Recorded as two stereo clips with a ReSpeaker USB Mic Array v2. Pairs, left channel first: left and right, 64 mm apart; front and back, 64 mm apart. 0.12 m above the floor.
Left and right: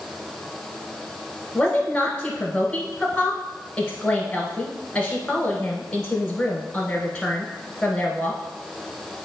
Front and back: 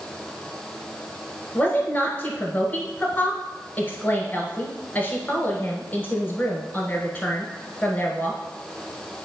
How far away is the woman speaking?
About 1.3 m.